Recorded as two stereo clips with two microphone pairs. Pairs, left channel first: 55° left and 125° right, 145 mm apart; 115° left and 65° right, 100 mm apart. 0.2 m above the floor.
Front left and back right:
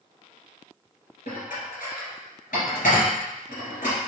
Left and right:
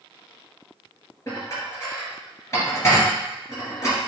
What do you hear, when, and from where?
1.3 s dishes clattering: 60° left, 2.5 m